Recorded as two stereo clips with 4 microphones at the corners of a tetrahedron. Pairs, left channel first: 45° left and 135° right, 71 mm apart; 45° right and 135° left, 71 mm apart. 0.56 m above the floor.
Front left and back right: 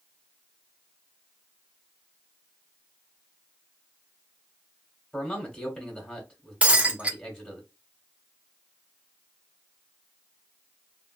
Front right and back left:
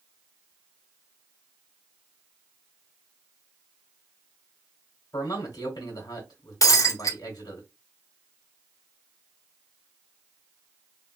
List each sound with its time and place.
5.1 s a man speaking: 40° right, 1.3 m
6.6 s breaking glass: 65° right, 0.6 m